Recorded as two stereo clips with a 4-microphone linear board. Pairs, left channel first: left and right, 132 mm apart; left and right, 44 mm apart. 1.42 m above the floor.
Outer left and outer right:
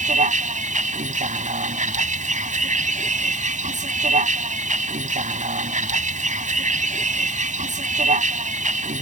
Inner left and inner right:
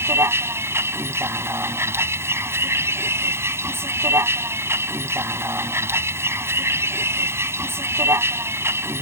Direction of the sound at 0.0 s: 70° right (ahead or behind).